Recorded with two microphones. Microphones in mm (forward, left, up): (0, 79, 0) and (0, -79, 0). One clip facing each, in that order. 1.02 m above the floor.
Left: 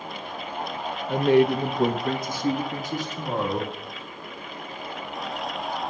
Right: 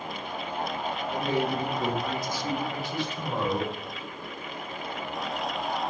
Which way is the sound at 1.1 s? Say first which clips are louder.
Left 10 dB; 60° left (ahead or behind).